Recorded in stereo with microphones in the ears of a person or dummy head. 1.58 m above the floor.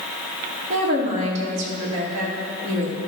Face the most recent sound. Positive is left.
turn(degrees=-50)  # may be behind; listen again after turning